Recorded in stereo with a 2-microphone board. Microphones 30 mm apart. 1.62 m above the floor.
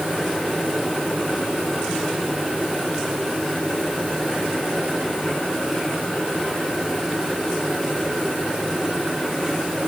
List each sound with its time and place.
Only background noise.